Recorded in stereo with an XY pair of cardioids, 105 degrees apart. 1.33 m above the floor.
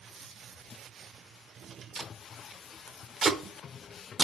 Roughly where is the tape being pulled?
Ahead right.